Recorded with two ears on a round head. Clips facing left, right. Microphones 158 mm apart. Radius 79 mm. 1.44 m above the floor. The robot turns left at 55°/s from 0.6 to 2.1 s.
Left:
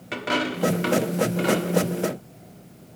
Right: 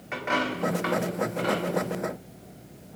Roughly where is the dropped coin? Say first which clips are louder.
Left 2 dB; left.